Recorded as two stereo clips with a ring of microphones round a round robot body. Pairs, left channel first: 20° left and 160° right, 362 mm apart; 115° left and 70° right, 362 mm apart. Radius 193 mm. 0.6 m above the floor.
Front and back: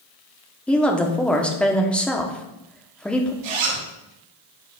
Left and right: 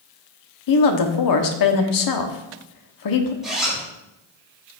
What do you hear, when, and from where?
0.7 s a woman speaking: 110° left, 1.2 m
3.4 s a zipper: 155° right, 3.5 m